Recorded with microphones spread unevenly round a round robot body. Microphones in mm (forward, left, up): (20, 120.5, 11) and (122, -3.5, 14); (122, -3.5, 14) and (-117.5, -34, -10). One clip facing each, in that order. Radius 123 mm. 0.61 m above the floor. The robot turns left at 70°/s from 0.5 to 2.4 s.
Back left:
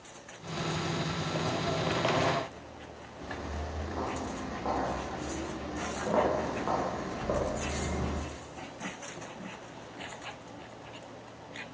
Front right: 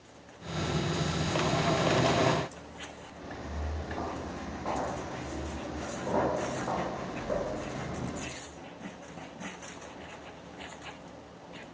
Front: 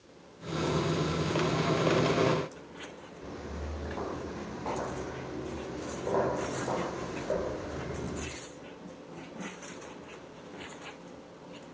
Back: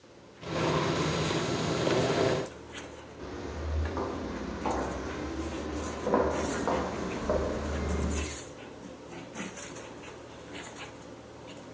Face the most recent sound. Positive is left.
turn(degrees=175)